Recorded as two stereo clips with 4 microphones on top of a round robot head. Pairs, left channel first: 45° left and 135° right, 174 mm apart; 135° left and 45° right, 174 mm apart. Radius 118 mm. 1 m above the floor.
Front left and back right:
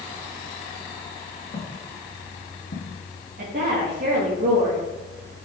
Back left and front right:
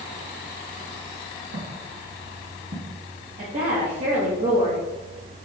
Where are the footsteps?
20° right, 3 m; by 3.0 s 15° left, 1.9 m.